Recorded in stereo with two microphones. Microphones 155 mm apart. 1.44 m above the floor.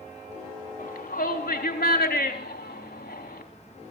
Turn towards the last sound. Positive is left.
turn(degrees=75)  # may be behind; listen again after turning